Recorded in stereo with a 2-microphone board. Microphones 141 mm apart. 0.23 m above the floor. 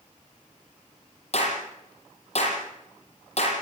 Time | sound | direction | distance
1.3 | a clap | 50° left (ahead or behind) | 8.5 m